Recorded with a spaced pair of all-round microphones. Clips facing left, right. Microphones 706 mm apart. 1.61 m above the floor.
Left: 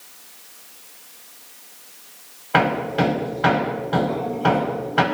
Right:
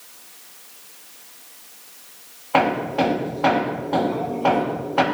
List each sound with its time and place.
2.5 s hammering: 45° left (ahead or behind), 5 m